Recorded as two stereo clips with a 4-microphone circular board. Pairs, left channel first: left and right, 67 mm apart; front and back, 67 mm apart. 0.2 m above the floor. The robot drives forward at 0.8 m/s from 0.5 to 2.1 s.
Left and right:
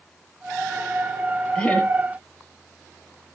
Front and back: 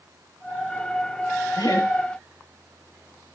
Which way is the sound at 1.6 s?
15° left.